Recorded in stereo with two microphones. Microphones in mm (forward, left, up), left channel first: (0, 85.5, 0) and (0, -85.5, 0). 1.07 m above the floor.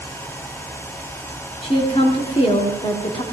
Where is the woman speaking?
35° left (ahead or behind), 2.5 m.